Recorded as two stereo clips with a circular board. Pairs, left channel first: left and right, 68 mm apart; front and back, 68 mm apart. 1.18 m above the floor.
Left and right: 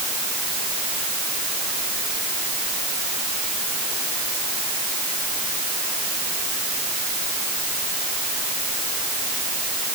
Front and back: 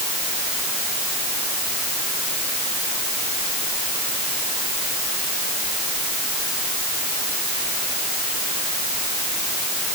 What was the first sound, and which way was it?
Only background noise.